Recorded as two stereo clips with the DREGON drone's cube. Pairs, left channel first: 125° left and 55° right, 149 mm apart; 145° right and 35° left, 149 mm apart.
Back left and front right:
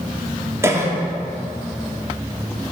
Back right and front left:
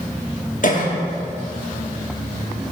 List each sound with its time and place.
0.6 s a cough: 125° right, 1.1 m